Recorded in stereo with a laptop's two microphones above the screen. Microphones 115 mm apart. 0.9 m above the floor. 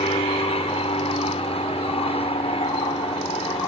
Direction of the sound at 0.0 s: 60° left (ahead or behind).